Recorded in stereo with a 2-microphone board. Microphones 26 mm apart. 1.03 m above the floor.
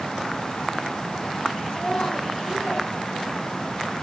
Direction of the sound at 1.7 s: 70° left (ahead or behind).